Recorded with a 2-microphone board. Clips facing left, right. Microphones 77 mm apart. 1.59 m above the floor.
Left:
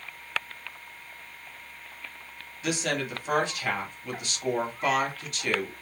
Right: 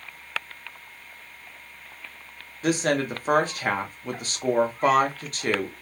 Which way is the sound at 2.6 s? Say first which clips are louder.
Right 6 dB; 40° right (ahead or behind).